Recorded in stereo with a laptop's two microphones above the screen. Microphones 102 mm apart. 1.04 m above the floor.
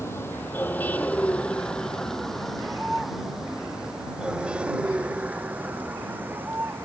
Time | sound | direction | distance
0.0 | a vehicle | 25° left (ahead or behind) | ?